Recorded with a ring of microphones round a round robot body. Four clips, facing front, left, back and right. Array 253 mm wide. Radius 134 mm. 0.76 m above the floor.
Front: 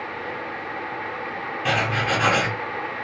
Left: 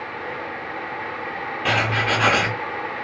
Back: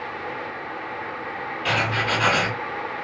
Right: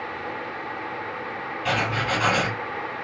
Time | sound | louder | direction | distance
1.6 | writing | left 3 dB, front 1 dB | 75° left | 1.1 m